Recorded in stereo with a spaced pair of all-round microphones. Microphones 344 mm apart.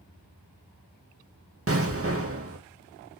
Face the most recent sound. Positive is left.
turn(degrees=-40)  # may be behind; listen again after turning